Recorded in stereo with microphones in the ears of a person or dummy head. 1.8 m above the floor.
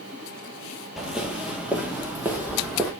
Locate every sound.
1.0 s footsteps: 5° right (ahead or behind), 2 m